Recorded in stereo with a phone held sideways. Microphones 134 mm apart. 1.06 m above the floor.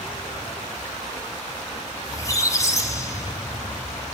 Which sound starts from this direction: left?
A squeak, at 2.0 s.